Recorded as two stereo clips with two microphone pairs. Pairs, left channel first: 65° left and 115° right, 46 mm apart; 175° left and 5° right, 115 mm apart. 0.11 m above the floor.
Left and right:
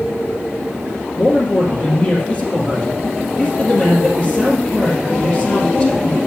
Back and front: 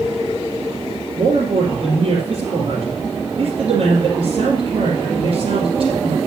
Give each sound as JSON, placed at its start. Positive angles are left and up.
{"t": 1.2, "sound": "a man speaking", "azimuth_deg": 10, "distance_m": 2.5}